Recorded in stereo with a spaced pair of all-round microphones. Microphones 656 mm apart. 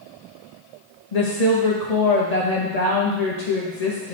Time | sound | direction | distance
1.1 | a woman speaking | 70° left (ahead or behind) | 1.1 m